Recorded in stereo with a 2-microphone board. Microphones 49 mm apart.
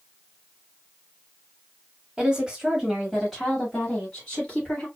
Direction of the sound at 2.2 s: 20° right (ahead or behind).